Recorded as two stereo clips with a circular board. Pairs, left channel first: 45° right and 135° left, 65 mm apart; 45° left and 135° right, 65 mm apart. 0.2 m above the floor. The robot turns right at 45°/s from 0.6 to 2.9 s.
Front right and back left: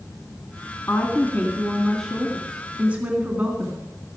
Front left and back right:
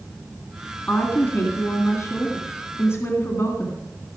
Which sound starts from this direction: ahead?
A woman speaking, at 0.9 s.